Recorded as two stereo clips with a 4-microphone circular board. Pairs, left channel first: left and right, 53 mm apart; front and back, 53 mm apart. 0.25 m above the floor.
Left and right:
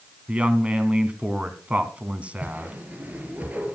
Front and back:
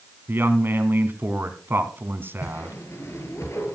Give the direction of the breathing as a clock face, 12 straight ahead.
No breathing in this recording.